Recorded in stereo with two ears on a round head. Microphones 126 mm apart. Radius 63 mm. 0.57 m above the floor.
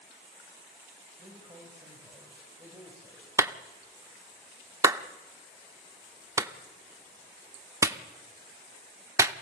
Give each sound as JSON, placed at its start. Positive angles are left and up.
{"t": 1.2, "sound": "a man speaking", "side_deg": -25, "distance_m": 3.5}
{"t": 3.4, "sound": "a clap", "side_deg": -20, "distance_m": 0.7}